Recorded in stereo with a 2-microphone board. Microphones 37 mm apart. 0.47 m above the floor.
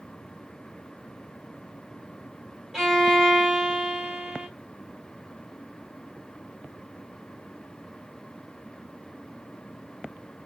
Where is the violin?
5° right (ahead or behind), 2.5 m.